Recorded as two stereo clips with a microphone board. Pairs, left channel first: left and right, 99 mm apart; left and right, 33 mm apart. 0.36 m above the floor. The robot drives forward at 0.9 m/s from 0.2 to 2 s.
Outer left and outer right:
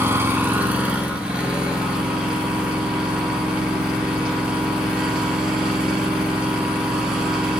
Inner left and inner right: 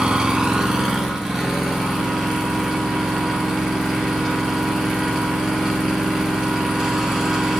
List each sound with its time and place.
0.0 s an engine running: 25° right (ahead or behind), 1.0 m; by 7.6 s 10° right (ahead or behind), 2.5 m